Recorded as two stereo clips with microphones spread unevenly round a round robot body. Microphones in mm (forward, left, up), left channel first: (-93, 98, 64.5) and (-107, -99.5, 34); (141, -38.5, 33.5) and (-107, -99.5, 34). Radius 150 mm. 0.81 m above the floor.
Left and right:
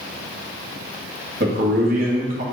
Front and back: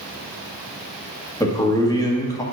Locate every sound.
1.4 s a man speaking: 60° right, 1.5 m